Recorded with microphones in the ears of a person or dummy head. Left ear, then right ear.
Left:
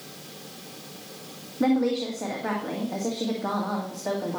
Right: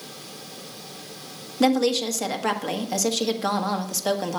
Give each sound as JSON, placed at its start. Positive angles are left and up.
{"t": 1.6, "sound": "a woman speaking", "side_deg": -75, "distance_m": 1.6}